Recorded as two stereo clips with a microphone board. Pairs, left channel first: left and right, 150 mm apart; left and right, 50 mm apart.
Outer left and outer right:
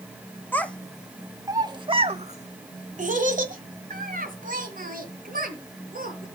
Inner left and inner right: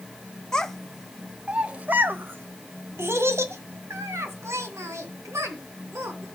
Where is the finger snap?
I don't hear a finger snap.